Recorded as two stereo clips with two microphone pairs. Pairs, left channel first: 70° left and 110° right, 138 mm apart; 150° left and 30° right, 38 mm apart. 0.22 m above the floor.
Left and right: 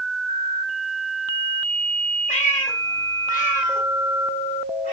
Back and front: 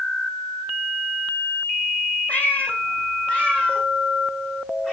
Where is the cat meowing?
100° left, 2 m; by 4.9 s 80° left, 4.5 m.